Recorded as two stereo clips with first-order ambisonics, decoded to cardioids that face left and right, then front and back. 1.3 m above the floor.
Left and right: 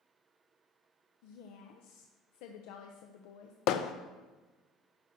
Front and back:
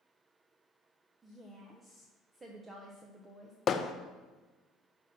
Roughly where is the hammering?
Ahead left.